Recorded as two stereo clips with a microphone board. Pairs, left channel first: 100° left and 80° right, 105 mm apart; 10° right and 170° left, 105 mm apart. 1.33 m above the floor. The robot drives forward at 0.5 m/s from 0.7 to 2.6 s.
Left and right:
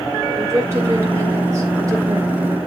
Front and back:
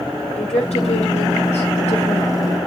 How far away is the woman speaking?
About 3.5 m.